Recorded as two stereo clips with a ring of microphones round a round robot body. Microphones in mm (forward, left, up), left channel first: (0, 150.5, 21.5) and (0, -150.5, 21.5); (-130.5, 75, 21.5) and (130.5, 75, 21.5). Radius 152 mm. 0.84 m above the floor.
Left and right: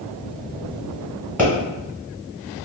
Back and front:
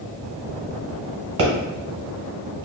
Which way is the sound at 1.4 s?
5° right.